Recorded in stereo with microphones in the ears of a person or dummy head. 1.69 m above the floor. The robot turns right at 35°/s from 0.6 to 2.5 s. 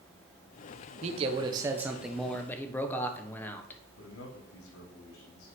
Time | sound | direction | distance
1.0 | a man speaking | 45° right | 1.5 m
4.0 | a man speaking | 80° left | 3.5 m